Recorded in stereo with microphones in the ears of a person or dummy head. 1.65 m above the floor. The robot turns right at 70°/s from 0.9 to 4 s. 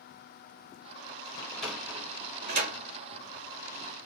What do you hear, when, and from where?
1.4 s a sliding door: 20° left (ahead or behind), 1.6 m; by 2.8 s 80° right, 1.6 m